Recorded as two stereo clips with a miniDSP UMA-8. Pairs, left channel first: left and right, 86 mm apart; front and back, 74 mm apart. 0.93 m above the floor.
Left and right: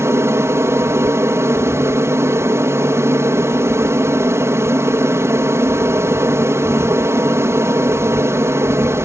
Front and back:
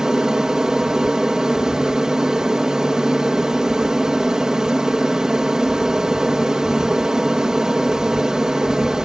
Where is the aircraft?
105° right.